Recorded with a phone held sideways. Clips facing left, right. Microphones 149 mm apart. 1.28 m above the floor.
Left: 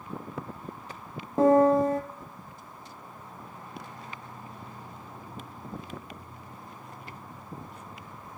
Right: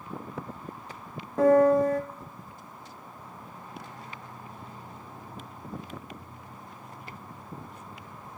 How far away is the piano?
About 0.7 m.